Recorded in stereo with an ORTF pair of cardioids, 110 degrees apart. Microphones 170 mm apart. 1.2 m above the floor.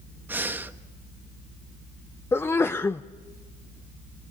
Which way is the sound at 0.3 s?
10° right.